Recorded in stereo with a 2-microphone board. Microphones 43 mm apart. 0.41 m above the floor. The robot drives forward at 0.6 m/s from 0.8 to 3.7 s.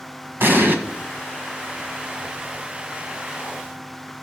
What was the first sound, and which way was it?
An explosion, 55° right (ahead or behind).